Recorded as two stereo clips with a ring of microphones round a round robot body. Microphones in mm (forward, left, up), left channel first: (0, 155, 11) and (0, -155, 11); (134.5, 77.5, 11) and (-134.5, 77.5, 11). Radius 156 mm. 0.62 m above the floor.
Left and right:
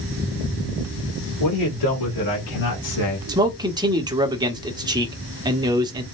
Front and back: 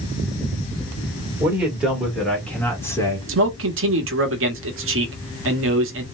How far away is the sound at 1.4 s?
About 2.5 m.